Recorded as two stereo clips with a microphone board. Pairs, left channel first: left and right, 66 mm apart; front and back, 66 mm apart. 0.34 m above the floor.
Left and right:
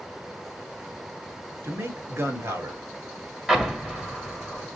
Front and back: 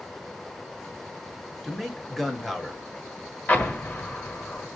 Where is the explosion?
25° right, 1.2 m.